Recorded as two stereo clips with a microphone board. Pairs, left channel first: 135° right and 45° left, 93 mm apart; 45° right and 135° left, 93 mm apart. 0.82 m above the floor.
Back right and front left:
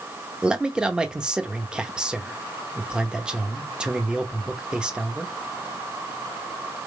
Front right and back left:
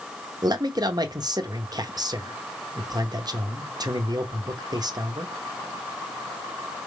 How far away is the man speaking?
About 0.7 m.